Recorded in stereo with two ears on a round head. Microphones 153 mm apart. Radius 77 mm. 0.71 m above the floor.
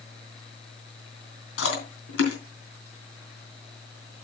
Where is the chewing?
90° left, 3.5 m.